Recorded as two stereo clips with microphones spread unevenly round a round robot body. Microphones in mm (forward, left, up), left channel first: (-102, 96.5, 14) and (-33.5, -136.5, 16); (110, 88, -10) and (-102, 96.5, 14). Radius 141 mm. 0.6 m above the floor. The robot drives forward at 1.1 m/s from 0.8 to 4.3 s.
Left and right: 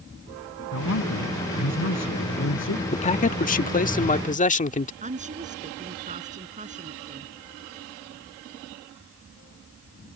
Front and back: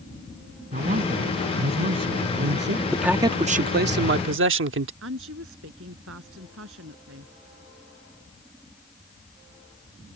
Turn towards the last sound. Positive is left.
turn(degrees=-135)